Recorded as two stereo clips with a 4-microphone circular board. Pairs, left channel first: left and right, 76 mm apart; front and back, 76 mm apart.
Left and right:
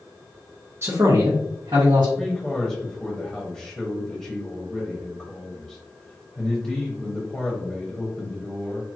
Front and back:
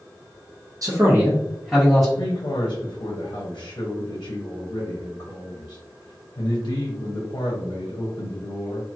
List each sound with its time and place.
0.8 s a man speaking: 145° right, 0.7 m; by 2.1 s 85° right, 1.1 m
2.2 s a man speaking: 15° left, 0.9 m